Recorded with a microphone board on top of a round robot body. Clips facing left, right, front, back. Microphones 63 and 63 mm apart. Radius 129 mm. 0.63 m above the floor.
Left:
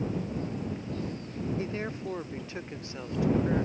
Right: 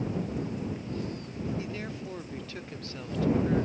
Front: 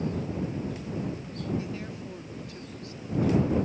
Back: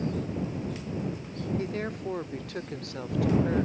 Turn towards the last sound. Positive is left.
turn(degrees=165)